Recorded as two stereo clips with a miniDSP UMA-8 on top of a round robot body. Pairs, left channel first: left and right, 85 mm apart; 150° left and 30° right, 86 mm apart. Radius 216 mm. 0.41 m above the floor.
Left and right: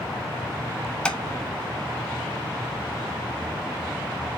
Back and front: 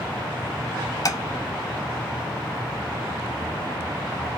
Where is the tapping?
165° left, 1.7 m.